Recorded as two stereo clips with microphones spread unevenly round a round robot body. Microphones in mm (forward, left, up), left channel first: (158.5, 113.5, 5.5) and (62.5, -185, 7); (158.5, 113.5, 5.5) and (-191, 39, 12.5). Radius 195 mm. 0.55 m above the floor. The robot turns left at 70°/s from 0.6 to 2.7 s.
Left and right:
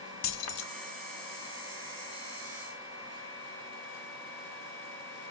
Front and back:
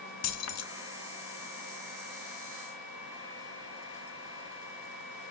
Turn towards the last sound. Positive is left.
turn(degrees=-90)